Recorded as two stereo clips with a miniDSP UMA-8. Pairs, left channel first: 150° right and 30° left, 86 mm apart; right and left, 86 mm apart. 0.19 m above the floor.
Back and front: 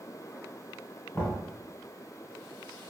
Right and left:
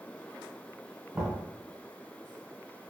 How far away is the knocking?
About 1.2 m.